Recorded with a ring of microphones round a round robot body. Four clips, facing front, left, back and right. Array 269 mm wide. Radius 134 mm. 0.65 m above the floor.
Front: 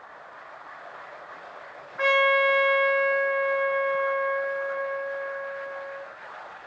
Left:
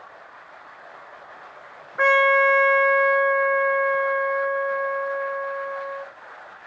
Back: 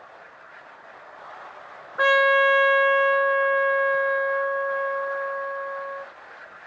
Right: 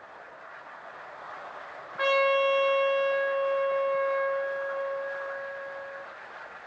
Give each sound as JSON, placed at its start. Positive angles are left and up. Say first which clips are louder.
{"t": 2.0, "sound": "a trumpet", "louder": "left 6 dB, back 3 dB", "azimuth_deg": 140, "distance_m": 1.4}